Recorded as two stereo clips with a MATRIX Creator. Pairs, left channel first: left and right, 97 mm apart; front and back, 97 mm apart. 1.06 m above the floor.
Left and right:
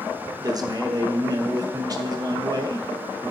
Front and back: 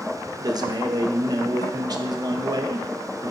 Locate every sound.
0.4 s a man speaking: 135° right, 0.9 m